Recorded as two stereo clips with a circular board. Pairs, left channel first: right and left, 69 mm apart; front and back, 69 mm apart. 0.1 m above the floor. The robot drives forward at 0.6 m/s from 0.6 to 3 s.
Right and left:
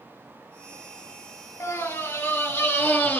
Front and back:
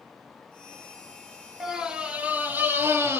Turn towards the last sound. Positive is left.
turn(degrees=-140)